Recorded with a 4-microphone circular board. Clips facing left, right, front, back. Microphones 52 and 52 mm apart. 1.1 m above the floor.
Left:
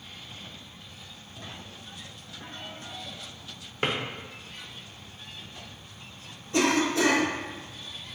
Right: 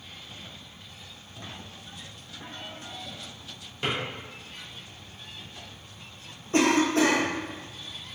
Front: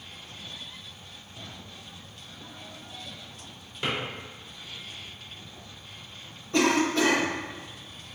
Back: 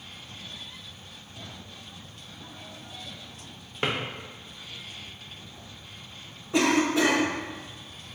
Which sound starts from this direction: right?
A cough, at 6.5 s.